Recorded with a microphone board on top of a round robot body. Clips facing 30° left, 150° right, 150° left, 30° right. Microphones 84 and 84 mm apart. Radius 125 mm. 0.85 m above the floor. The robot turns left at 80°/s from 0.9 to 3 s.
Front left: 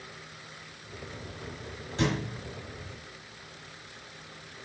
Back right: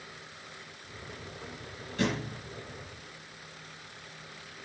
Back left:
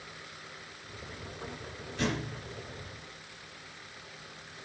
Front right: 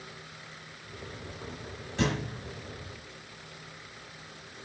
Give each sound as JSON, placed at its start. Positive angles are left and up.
{"t": 2.0, "sound": "a thud", "azimuth_deg": -30, "distance_m": 1.2}